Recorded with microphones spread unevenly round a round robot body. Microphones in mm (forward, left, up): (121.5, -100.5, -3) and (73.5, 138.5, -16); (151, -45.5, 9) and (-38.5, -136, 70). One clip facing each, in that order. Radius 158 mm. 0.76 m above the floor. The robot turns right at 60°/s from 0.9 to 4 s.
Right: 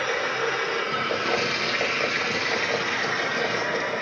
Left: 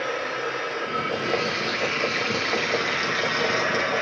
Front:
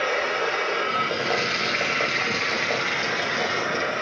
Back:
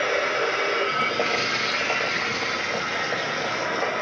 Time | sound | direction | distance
0.0 | running water | 80° right | 5 m